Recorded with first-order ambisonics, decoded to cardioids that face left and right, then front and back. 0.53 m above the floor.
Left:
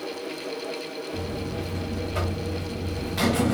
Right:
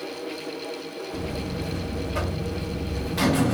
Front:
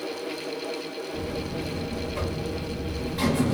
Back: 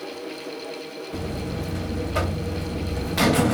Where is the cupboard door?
No cupboard door in this recording.